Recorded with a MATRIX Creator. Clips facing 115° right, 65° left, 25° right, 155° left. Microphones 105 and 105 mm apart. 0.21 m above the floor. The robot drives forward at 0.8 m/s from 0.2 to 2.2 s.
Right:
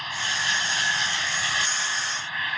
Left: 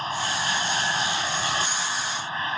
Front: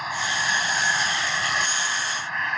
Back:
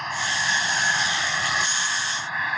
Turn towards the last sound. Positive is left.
turn(degrees=75)